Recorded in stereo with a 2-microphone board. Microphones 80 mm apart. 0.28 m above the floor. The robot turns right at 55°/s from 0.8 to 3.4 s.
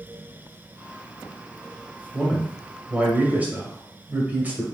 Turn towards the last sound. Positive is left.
turn(degrees=-20)  # may be behind; listen again after turning